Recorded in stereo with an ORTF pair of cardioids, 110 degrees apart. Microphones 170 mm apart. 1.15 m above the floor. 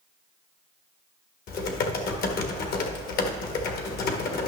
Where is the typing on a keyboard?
60° left, 1.4 m.